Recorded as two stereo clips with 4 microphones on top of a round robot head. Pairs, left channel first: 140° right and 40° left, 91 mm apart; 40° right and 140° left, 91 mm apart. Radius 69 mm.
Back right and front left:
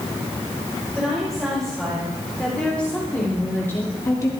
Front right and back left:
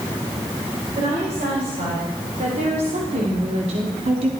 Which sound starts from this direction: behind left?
A woman speaking, at 1.0 s.